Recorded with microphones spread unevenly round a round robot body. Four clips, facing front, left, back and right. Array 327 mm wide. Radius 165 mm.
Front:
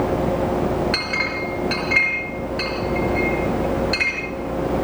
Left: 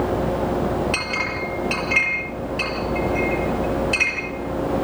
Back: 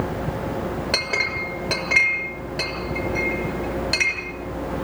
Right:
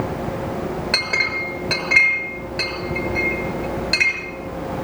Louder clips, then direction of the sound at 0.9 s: Right 1 dB, front 2 dB; 150° right.